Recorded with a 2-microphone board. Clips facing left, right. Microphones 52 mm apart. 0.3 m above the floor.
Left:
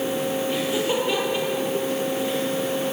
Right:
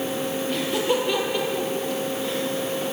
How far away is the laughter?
About 7.5 m.